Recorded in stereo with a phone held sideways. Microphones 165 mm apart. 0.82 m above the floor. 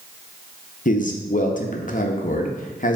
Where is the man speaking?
50° left (ahead or behind), 0.5 m.